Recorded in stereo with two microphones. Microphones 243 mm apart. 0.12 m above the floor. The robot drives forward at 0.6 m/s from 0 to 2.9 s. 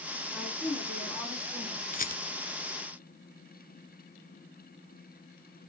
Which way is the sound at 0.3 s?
5° left (ahead or behind).